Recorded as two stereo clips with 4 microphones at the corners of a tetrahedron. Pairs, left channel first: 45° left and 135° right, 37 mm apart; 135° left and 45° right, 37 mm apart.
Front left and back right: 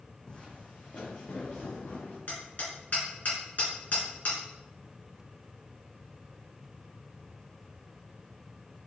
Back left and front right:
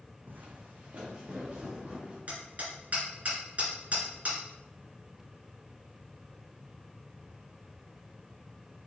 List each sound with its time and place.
0.3 s footsteps: 20° right, 1.2 m; by 2.2 s 15° left, 3 m
2.3 s hammering: 5° left, 2.5 m